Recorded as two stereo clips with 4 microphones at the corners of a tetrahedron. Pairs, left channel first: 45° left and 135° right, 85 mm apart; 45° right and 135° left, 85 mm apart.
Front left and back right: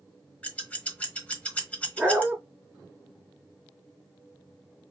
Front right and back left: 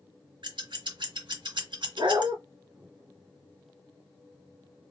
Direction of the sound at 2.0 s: 145° left.